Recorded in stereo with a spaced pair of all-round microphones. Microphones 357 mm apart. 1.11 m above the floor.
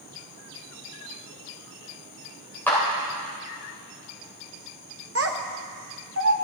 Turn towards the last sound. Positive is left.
turn(degrees=-40)  # may be behind; listen again after turning